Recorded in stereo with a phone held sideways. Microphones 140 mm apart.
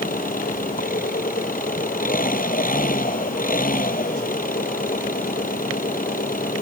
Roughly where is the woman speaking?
I don't hear a woman speaking.